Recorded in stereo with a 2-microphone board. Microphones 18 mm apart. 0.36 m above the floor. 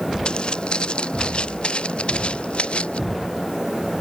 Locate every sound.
0.2 s footsteps: 55° left (ahead or behind); by 3.0 s 80° left